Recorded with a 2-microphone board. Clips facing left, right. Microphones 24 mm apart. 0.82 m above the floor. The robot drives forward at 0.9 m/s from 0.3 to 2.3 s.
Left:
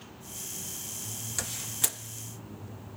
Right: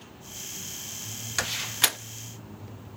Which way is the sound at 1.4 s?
40° right (ahead or behind).